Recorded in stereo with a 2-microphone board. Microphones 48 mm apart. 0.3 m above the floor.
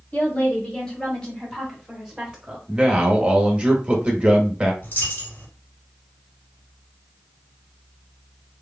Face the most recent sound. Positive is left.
turn(degrees=40)  # may be behind; listen again after turning